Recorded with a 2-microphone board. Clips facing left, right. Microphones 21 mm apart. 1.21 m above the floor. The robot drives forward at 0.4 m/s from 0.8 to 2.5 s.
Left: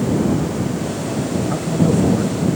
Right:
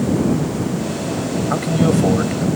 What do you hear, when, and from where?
1.5 s a man speaking: 90° right